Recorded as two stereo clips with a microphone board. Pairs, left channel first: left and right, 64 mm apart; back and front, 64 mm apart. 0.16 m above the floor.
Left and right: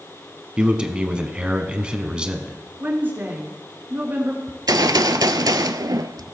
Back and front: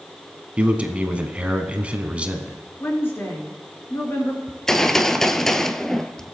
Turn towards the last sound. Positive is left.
turn(degrees=-95)